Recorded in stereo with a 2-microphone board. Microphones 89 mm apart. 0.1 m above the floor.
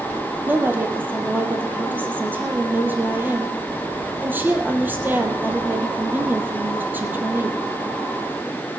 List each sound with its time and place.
0.5 s a woman speaking: 20° right (ahead or behind), 2.5 m